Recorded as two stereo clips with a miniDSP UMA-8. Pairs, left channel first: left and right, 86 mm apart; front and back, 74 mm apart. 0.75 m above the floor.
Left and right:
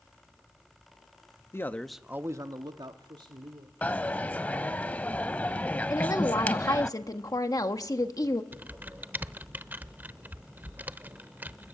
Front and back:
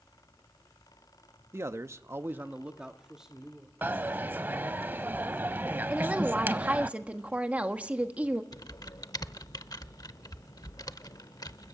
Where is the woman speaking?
115° left, 1.3 m.